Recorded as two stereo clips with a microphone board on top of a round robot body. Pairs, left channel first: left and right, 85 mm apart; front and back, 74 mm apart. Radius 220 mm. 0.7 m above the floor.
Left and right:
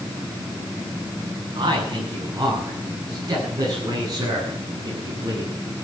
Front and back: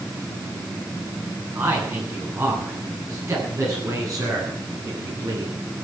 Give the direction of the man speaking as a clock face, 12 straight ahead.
4 o'clock.